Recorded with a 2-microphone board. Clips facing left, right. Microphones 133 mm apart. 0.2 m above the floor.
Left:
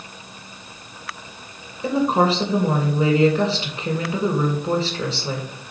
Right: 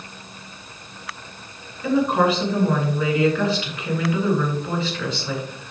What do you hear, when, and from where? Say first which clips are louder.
1.8 s a woman speaking: even; 35° left (ahead or behind), 2.5 m